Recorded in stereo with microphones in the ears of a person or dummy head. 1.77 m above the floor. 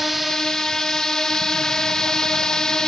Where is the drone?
Centre (ahead or behind); by 2.9 s 5° left (ahead or behind).